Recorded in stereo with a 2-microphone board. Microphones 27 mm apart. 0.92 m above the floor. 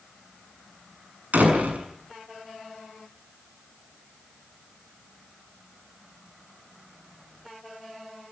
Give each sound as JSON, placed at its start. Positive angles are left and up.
{"t": 1.3, "sound": "a door slam", "side_deg": -80, "distance_m": 7.0}